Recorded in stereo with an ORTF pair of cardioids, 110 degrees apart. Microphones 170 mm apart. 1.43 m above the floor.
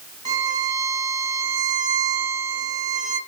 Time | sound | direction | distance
0.2 | a violin | 25° right | 1.0 m